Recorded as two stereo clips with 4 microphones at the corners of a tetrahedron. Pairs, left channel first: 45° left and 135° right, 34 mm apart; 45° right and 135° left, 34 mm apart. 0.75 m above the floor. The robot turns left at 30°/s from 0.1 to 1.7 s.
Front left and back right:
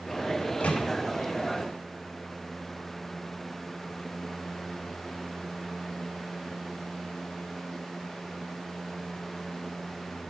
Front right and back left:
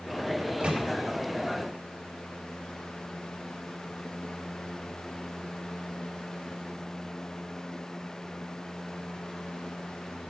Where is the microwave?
85° left, 0.9 m; by 0.9 s 75° left, 0.9 m.